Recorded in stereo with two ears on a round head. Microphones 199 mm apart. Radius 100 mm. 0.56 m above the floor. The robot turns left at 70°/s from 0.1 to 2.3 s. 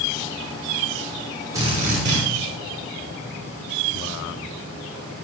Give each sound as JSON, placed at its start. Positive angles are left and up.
{"t": 1.5, "sound": "a drill", "azimuth_deg": -15, "distance_m": 6.5}